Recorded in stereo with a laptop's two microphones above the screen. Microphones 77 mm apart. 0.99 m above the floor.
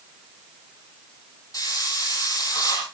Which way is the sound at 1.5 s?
45° left (ahead or behind).